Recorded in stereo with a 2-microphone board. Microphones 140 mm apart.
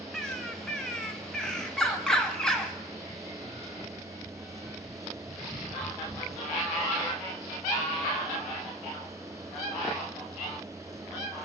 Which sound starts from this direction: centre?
A bird, at 0.1 s.